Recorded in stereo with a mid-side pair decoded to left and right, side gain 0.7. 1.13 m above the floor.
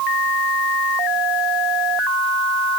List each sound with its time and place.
Only background noise.